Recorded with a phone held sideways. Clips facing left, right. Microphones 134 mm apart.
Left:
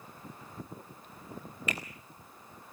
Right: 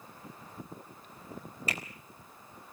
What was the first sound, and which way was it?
A finger snap, 35° right (ahead or behind).